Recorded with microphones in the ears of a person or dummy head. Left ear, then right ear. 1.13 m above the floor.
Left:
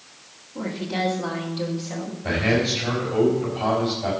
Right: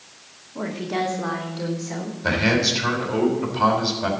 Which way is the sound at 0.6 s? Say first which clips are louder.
Right 1 dB; 35° right (ahead or behind).